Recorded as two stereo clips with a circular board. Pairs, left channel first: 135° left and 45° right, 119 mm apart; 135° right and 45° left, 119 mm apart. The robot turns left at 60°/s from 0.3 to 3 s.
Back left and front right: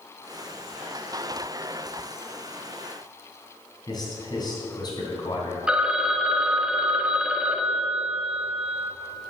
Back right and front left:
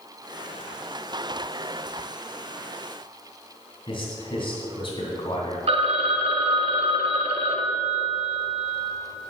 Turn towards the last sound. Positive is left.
turn(degrees=35)